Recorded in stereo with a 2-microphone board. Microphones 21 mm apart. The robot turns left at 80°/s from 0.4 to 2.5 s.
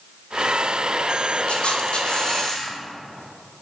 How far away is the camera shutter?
About 0.8 m.